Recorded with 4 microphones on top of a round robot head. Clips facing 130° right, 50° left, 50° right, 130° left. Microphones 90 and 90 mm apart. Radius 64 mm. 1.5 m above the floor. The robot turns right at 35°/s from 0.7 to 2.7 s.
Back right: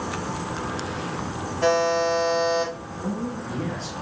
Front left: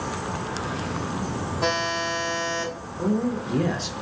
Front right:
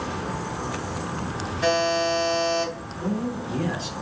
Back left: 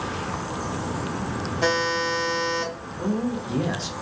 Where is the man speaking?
65° left, 0.8 m.